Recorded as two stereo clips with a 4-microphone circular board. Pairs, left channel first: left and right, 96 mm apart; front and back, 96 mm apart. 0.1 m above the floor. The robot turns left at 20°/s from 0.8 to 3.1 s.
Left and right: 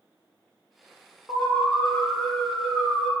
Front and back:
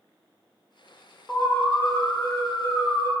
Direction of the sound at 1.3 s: 45° left.